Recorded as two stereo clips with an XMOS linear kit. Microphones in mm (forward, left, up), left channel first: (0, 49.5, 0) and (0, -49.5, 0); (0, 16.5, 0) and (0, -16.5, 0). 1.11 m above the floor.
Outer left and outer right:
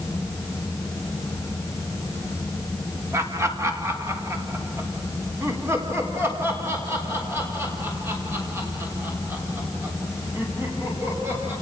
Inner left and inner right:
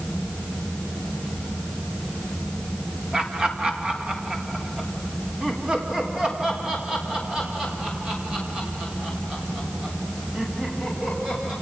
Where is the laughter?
25° right (ahead or behind), 2 m; by 11.5 s 20° right (ahead or behind), 8.5 m.